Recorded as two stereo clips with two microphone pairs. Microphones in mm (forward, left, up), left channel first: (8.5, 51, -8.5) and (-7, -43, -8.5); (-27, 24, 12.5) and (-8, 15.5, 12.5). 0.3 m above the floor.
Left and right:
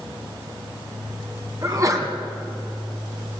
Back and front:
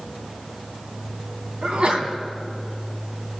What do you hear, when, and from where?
1.6 s a sneeze: 55° right, 2.5 m